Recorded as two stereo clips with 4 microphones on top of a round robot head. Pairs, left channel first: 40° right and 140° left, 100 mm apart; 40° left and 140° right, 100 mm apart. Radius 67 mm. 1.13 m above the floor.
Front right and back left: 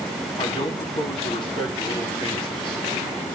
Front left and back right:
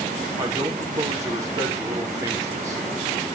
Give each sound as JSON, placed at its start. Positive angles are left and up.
{"t": 0.4, "sound": "a man speaking", "azimuth_deg": -80, "distance_m": 4.0}